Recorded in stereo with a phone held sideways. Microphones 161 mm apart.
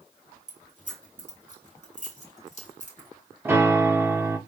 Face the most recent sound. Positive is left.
turn(degrees=-15)  # may be behind; listen again after turning